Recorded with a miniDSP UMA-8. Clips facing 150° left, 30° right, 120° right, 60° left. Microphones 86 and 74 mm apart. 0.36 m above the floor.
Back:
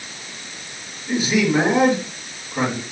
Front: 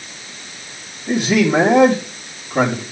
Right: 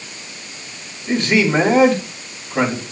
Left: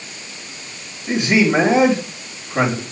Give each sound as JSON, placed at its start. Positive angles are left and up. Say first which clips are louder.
{"t": 1.1, "sound": "a man speaking", "louder": "front 3 dB, even", "azimuth_deg": -25, "distance_m": 4.5}